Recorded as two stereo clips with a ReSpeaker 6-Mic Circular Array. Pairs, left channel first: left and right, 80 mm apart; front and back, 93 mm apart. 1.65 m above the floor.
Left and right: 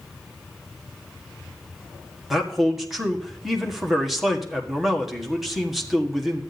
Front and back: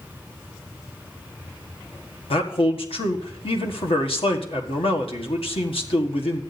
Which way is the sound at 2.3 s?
Straight ahead.